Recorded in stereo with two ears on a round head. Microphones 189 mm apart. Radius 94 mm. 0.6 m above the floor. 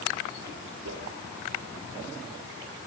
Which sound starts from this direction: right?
A whoosh, at 0.8 s.